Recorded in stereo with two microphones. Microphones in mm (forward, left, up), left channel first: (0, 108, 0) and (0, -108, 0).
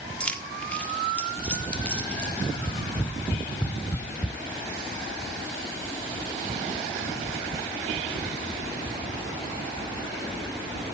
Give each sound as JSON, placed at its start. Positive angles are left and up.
{"t": 0.2, "sound": "keys jangling", "side_deg": 5, "distance_m": 1.6}
{"t": 2.5, "sound": "tapping", "side_deg": 10, "distance_m": 1.3}